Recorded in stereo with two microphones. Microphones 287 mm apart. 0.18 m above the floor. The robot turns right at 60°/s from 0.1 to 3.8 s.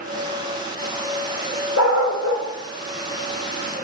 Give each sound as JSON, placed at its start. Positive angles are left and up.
{"t": 1.8, "sound": "a dog barking", "side_deg": 65, "distance_m": 2.0}